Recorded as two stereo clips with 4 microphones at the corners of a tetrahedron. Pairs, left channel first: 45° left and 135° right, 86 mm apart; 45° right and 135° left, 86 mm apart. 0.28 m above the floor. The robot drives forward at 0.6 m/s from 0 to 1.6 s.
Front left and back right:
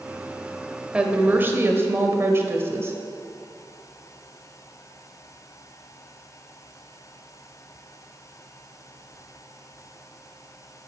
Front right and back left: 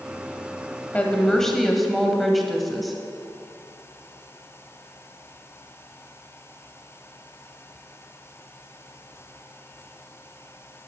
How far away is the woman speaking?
About 0.9 m.